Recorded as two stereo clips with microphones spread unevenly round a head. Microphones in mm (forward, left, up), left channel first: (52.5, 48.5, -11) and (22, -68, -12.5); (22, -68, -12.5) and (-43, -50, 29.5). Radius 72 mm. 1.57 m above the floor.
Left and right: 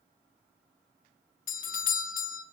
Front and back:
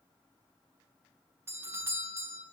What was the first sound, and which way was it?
A doorbell, 80° left.